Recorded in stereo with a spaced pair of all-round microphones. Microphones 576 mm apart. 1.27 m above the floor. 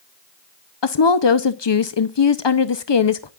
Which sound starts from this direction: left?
A woman speaking, at 0.8 s.